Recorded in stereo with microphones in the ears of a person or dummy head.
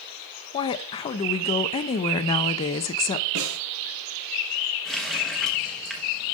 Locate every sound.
0.5 s a woman speaking: 30° left (ahead or behind), 0.5 m
3.4 s a snare drum: 65° right (ahead or behind), 3 m
4.8 s a running tap: centre (ahead or behind), 1.0 m